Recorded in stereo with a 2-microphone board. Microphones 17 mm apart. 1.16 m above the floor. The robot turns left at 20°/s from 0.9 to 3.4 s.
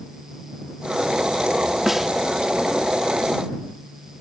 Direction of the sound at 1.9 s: 25° right (ahead or behind).